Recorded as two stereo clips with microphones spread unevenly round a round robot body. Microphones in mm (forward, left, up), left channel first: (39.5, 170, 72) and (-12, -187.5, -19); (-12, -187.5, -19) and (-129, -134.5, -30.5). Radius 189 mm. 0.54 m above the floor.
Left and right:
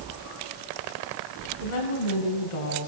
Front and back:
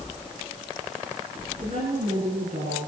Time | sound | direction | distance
1.6 | a woman speaking | 85° left | 6 m